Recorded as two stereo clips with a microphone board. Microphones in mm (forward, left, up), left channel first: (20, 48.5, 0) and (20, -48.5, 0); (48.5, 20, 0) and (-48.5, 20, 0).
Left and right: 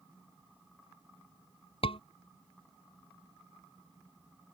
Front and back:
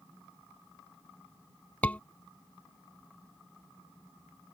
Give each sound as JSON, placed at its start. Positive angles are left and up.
{"t": 1.8, "sound": "a scream", "azimuth_deg": 75}